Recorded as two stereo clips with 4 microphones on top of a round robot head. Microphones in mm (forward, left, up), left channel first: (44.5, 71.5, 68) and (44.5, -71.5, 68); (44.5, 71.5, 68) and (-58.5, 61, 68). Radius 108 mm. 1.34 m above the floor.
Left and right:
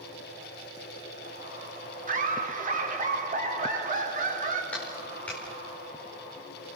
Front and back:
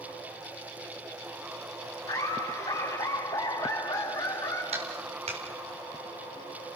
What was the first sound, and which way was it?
Laughter, 60° right.